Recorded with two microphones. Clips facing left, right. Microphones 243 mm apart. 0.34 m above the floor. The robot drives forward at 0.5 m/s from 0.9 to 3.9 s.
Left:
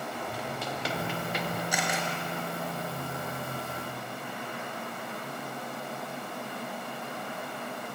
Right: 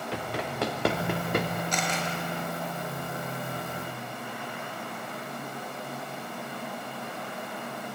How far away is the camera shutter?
About 5.5 m.